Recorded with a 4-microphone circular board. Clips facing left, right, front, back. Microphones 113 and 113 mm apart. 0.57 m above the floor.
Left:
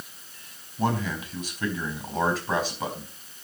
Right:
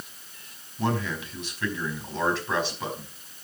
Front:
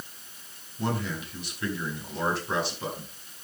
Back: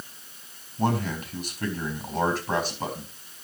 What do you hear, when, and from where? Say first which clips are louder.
0.8 s a man speaking: left 1 dB, back 4 dB; 140° left, 4.5 m